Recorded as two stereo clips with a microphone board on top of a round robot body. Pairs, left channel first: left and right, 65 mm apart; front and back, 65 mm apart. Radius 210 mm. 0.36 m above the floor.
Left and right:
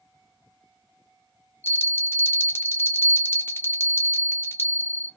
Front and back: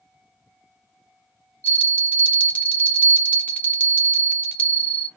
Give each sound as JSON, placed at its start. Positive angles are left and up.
{"t": 1.6, "sound": "a bell", "azimuth_deg": 60, "distance_m": 1.3}